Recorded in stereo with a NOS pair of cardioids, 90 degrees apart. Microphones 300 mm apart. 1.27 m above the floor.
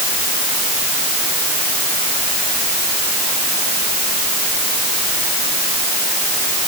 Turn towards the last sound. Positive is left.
No sound to turn to.